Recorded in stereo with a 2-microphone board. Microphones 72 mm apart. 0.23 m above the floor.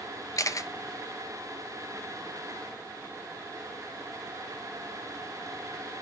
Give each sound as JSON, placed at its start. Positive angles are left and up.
{"t": 0.4, "sound": "a camera shutter", "side_deg": 50, "distance_m": 0.6}